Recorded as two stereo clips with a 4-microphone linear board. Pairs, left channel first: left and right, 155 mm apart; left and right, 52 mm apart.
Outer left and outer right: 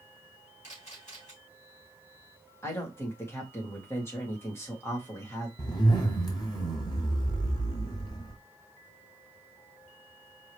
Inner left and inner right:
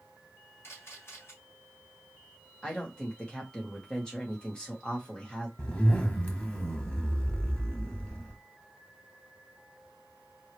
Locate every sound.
0.6 s a camera shutter: 50° left (ahead or behind), 3 m
2.6 s a woman speaking: 15° left (ahead or behind), 2 m
5.6 s a zipper: 30° left (ahead or behind), 1.3 m